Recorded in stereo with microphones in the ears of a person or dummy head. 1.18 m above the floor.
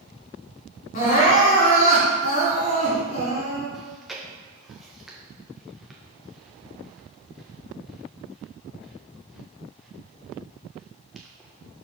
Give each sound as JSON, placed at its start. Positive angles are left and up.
{"t": 0.9, "sound": "crying", "side_deg": 45, "distance_m": 3.0}
{"t": 3.7, "sound": "chewing", "side_deg": 0, "distance_m": 1.1}